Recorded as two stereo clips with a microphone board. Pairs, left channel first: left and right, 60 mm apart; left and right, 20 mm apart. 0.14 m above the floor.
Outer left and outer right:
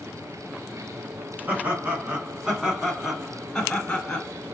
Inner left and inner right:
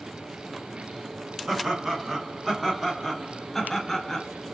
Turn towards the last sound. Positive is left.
turn(degrees=20)  # may be behind; listen again after turning